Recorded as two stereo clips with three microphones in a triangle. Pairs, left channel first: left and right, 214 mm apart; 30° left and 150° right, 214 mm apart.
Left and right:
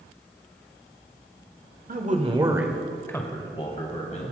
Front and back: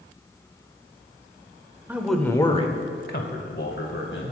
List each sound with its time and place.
1.9 s a man speaking: 70° right, 1.3 m; by 4.3 s 40° left, 2.5 m